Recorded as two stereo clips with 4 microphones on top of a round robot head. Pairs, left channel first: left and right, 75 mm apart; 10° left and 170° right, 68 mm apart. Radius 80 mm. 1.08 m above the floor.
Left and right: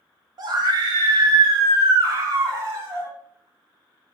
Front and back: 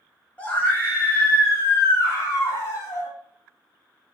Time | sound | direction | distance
0.4 | a scream | 60° right | 2.5 m